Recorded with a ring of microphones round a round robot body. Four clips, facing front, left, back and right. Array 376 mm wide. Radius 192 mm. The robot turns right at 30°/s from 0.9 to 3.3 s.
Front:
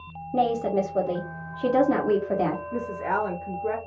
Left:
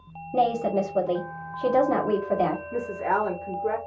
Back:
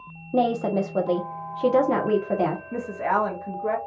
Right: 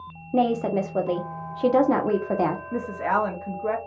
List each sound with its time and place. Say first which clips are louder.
0.3 s a woman speaking: right 1 dB, back 1 dB; 135° right, 0.9 m; by 2.6 s 85° right, 0.9 m
2.7 s a woman speaking: right 1 dB, back 2 dB; 130° right, 1.0 m; by 3.8 s 115° right, 1.0 m